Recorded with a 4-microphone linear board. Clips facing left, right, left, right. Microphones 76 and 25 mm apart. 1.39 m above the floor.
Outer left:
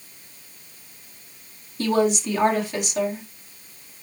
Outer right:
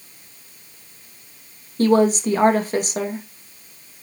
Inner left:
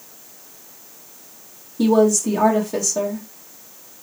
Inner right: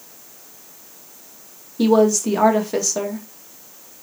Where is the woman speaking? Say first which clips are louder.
Outer right 5 dB, even; 40° right (ahead or behind), 2 m.